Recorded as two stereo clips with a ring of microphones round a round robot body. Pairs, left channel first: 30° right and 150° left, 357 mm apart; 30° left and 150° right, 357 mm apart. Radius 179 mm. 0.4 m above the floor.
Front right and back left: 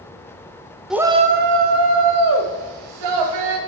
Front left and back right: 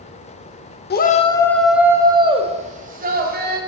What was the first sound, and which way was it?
A shout, 65° left.